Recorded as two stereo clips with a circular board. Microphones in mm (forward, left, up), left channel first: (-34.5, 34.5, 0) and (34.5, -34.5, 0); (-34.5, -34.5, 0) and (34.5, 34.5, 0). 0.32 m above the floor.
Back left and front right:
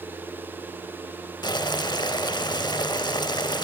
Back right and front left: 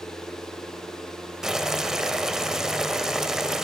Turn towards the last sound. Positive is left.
turn(degrees=130)